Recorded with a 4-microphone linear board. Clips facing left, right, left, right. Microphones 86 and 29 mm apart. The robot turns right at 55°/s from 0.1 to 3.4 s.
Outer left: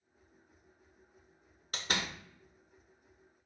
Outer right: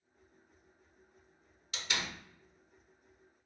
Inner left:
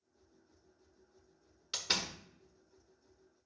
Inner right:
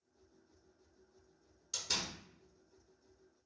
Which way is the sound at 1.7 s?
45° left (ahead or behind).